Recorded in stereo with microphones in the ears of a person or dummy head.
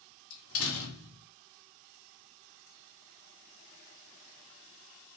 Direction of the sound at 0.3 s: 85° left.